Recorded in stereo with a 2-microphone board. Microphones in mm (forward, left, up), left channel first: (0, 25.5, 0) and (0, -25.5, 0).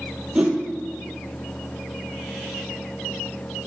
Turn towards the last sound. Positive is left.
turn(degrees=-20)  # may be behind; listen again after turning